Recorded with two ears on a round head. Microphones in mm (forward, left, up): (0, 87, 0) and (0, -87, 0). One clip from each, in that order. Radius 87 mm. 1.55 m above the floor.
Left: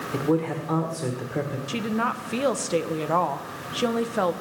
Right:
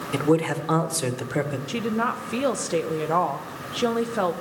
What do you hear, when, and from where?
0.1 s a man speaking: 65° right (ahead or behind), 1.6 m
1.7 s a woman speaking: 5° left (ahead or behind), 0.9 m